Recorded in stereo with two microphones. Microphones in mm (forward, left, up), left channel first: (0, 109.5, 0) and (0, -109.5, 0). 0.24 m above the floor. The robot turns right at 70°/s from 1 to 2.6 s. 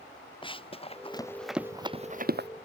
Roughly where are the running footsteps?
Left.